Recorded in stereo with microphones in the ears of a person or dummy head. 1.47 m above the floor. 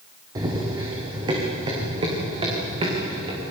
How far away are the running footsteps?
About 5 m.